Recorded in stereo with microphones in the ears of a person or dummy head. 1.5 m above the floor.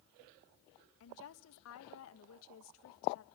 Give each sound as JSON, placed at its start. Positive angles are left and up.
{"t": 1.0, "sound": "a woman speaking", "side_deg": 75, "distance_m": 1.5}